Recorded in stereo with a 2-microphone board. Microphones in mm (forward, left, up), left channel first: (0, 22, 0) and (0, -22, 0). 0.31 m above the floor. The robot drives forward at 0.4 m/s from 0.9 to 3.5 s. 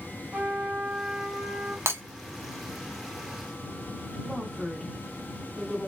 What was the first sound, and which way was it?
A trumpet, 10° right (ahead or behind).